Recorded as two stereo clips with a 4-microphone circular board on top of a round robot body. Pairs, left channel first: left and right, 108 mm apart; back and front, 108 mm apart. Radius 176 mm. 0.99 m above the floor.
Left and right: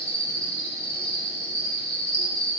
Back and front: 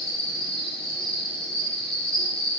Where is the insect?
95° left, 0.8 m.